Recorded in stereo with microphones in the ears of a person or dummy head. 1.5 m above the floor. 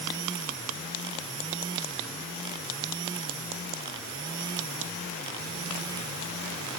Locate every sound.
Only background noise.